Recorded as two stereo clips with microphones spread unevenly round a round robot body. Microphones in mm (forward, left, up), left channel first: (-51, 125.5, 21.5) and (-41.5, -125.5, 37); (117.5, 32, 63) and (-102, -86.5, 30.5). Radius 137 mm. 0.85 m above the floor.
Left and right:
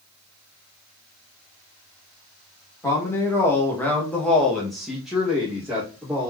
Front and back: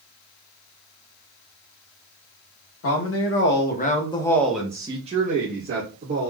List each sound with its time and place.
2.8 s a woman speaking: 15° left, 1.0 m; by 6.3 s 175° right, 1.3 m